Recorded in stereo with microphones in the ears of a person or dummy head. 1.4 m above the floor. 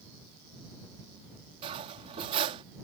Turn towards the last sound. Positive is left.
turn(degrees=-30)  # may be behind; listen again after turning